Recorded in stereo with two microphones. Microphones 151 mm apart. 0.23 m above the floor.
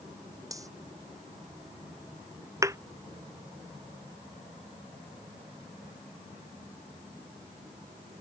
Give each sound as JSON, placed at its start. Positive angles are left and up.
{"t": 0.5, "sound": "cutlery clinking", "side_deg": -20}
{"t": 2.6, "sound": "a thud", "side_deg": -20}